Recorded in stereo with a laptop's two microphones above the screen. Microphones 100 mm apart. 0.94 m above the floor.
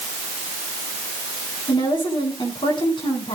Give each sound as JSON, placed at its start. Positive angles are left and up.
{"t": 1.7, "sound": "a woman speaking", "side_deg": 55, "distance_m": 7.5}